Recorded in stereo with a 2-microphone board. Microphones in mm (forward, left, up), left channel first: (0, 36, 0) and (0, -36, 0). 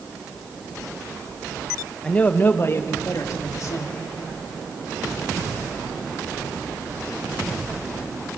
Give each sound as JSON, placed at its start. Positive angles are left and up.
{"t": 2.0, "sound": "a man speaking", "side_deg": 10, "distance_m": 0.9}